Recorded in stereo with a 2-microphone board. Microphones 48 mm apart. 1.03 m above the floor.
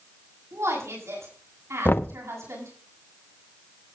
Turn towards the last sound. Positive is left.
turn(degrees=45)  # may be behind; listen again after turning